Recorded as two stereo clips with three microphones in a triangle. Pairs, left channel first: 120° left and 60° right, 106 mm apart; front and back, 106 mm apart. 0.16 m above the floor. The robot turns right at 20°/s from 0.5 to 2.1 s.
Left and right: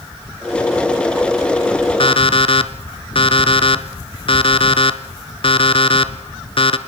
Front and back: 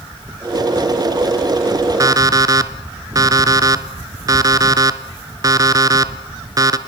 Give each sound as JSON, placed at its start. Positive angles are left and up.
{"t": 2.0, "sound": "an alarm clock", "azimuth_deg": 130, "distance_m": 1.2}